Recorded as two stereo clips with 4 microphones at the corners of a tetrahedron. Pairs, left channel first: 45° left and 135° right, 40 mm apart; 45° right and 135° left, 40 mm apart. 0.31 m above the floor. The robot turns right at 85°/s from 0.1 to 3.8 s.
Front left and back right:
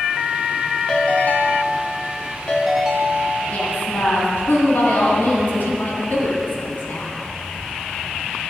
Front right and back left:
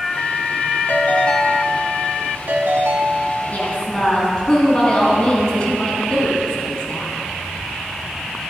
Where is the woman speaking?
5° right, 2.5 m; by 7.1 s 20° left, 2.5 m.